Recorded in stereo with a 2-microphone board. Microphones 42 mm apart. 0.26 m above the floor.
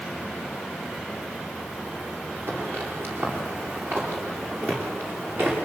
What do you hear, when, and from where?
2.5 s footsteps: 55° right (ahead or behind), 9 m; by 5.5 s 60° right (ahead or behind), 12 m